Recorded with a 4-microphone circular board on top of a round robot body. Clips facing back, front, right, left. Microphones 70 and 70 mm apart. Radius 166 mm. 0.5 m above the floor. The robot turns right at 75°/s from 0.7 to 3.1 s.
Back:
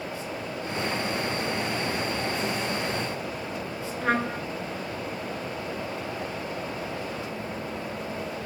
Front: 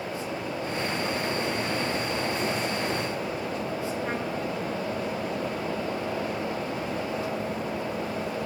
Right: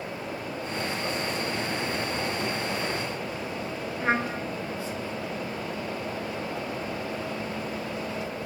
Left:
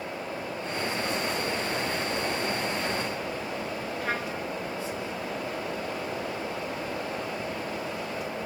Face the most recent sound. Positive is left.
turn(degrees=-150)